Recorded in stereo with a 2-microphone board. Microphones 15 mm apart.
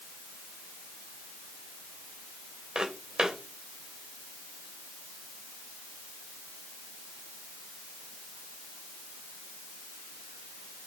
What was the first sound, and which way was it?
Footsteps, 80° right.